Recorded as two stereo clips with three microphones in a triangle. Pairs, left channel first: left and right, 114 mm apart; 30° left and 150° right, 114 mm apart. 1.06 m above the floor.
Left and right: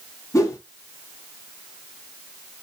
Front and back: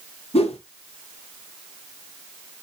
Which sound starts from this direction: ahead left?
A whoosh, at 0.3 s.